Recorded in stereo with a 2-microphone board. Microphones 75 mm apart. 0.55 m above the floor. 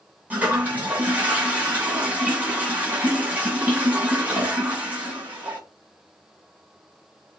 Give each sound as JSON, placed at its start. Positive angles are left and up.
{"t": 0.3, "sound": "a toilet flushing", "side_deg": -20, "distance_m": 2.5}